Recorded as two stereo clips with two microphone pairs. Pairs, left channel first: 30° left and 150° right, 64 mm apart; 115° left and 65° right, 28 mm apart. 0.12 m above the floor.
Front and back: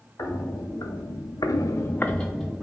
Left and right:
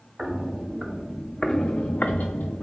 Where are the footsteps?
5° right, 1.4 m; by 2.6 s 125° left, 1.0 m.